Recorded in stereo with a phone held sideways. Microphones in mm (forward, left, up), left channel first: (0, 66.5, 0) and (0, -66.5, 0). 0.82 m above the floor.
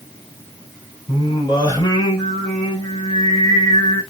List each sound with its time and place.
1.1 s singing: 30° left (ahead or behind), 3 m